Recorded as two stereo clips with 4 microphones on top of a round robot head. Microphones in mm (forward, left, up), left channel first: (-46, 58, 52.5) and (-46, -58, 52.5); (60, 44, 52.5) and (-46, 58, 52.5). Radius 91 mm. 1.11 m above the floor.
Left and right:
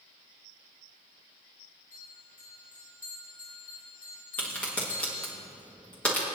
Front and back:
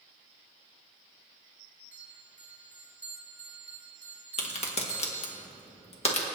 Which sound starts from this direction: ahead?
A crack, at 4.4 s.